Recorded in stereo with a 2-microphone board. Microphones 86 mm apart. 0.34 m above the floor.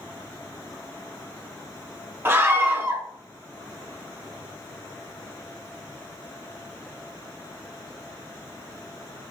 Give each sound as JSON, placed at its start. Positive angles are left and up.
{"t": 2.2, "sound": "a scream", "side_deg": -30, "distance_m": 1.0}